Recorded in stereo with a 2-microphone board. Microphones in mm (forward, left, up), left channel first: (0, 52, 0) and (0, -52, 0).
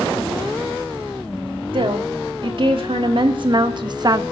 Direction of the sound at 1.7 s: 60° right (ahead or behind).